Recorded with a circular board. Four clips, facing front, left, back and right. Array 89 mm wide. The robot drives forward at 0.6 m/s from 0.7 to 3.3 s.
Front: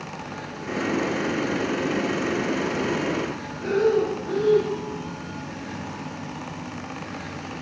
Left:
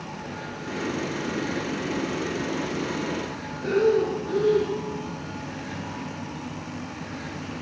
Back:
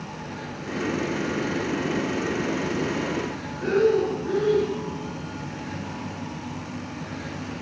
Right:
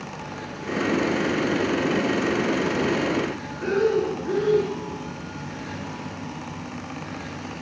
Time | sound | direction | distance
3.6 | breathing | 130° right | 2.5 m